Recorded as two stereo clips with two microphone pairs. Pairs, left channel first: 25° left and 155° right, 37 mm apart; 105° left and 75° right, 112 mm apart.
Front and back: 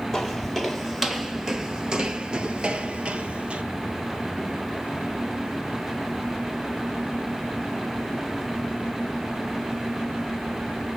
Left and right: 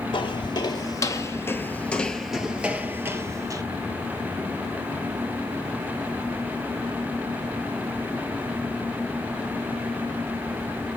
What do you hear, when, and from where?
0.1 s footsteps: 105° left, 1.5 m; by 3.6 s 115° right, 1.4 m